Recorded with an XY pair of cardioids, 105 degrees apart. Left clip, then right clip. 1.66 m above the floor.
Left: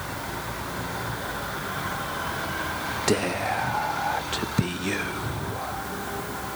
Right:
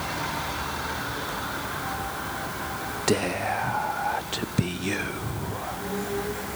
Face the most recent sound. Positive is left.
turn(degrees=5)